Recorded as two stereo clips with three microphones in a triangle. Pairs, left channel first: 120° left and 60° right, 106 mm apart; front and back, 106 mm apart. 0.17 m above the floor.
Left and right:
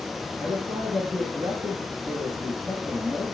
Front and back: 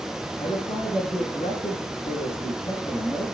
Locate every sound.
0.4 s a man speaking: 25° right, 9.5 m